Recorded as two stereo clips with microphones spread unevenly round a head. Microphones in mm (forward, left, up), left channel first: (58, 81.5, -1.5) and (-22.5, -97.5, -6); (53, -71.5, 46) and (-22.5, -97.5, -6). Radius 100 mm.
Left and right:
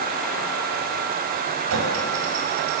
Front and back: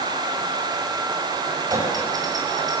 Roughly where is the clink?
Right.